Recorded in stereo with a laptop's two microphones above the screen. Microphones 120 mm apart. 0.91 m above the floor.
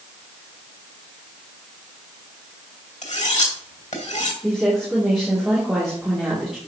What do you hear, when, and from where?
3.0 s cutlery clinking: 75° left (ahead or behind), 2.5 m
4.4 s a woman speaking: centre (ahead or behind), 2.5 m